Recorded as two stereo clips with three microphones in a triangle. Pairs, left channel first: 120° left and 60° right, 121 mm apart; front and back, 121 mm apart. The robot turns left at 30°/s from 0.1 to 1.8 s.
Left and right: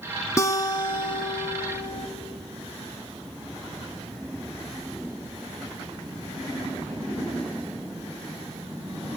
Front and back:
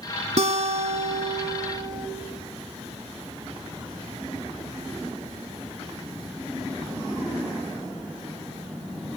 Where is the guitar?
Straight behind, 0.7 m; by 2.1 s 140° left, 0.7 m.